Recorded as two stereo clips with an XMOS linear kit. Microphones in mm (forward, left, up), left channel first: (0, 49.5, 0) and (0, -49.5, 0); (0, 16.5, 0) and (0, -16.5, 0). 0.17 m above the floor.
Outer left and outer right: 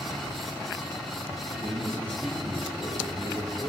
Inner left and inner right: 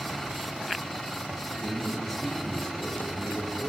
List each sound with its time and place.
1.6 s a man speaking: 15° left (ahead or behind), 9 m